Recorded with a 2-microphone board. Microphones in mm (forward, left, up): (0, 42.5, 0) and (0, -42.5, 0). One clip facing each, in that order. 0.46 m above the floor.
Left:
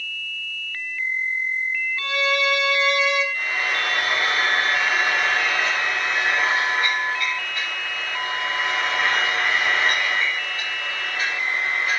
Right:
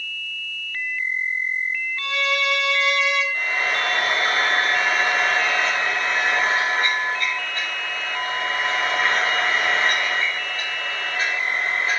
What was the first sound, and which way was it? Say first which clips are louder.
A violin: left 2 dB; 5° left (ahead or behind).